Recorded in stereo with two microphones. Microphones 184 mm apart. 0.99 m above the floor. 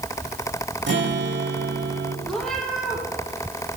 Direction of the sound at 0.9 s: 85° right.